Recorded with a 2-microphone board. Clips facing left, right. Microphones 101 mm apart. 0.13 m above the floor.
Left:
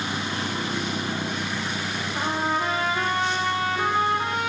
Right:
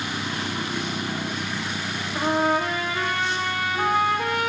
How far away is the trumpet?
About 6 m.